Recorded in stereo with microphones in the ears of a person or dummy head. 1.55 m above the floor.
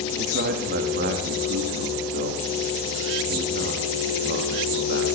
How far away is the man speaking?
About 3 m.